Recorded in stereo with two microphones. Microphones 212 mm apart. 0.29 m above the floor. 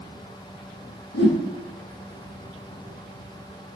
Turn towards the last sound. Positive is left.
turn(degrees=55)  # may be behind; listen again after turning